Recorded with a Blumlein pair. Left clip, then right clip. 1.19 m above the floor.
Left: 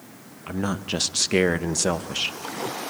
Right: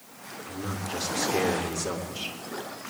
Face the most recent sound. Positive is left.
turn(degrees=55)